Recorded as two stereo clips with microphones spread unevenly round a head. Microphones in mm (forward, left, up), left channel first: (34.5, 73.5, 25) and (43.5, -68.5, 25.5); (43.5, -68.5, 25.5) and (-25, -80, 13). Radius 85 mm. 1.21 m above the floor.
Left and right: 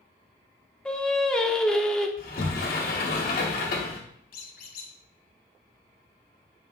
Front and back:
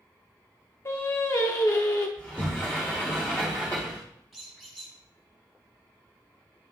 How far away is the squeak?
About 1.8 m.